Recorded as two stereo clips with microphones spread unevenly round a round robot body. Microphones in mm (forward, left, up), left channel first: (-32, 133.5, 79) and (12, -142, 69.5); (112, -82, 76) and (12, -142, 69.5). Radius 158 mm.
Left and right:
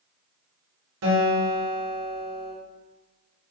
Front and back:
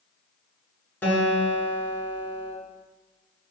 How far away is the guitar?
About 3.5 m.